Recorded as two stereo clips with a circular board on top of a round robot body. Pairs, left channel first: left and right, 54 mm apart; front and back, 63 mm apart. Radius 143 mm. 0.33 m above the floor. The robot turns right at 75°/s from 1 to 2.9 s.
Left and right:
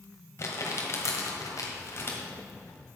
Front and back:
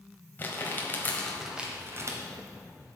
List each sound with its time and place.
0.4 s crumpling: 60° left, 1.5 m; by 2.2 s 145° left, 1.5 m